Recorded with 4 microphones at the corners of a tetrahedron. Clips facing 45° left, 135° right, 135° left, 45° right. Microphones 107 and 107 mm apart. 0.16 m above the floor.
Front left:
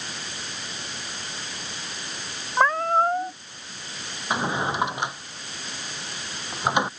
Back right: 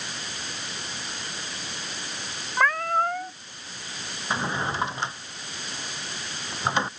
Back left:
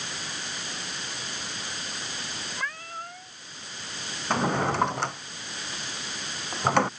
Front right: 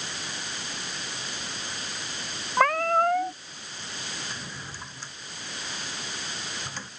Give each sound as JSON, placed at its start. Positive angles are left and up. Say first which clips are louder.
{"t": 2.6, "sound": "a cat meowing", "louder": "front left 3 dB, front right 18 dB", "azimuth_deg": -20}
{"t": 4.3, "sound": "a drawer", "louder": "front left 3 dB, back left 16 dB", "azimuth_deg": 120}